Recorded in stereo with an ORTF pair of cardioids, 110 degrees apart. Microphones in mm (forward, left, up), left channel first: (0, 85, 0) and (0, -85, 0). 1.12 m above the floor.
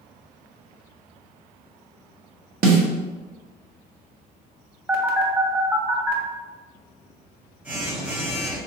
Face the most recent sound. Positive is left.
turn(degrees=-10)